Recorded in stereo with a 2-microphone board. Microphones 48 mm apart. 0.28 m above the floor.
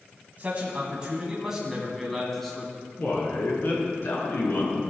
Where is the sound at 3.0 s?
60° left (ahead or behind), 4.5 m.